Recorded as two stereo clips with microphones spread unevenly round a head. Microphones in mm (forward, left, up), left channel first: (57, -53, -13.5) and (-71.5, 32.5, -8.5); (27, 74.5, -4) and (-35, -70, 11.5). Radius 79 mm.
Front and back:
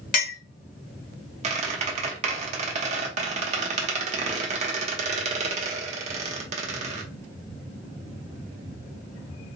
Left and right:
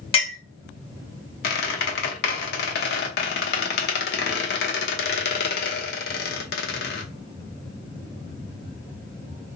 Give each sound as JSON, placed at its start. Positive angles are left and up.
{"t": 0.1, "sound": "a clink", "azimuth_deg": 10, "distance_m": 1.0}
{"t": 1.4, "sound": "a squeak", "azimuth_deg": 95, "distance_m": 0.8}